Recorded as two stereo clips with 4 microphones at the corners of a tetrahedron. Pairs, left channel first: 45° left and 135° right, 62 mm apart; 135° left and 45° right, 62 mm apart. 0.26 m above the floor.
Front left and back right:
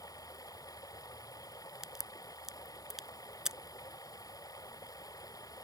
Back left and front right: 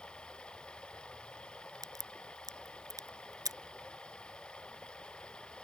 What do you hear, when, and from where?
0.0 s running water: 60° left
1.8 s a crack: 55° right